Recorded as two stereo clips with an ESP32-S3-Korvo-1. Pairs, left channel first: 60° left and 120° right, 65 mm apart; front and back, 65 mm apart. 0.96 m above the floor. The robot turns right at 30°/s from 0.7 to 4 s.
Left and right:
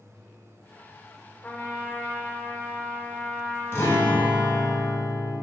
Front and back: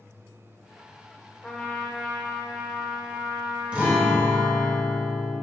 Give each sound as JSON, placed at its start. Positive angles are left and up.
{"t": 1.4, "sound": "a trumpet", "azimuth_deg": 70, "distance_m": 0.6}
{"t": 3.7, "sound": "a guitar", "azimuth_deg": 110, "distance_m": 1.1}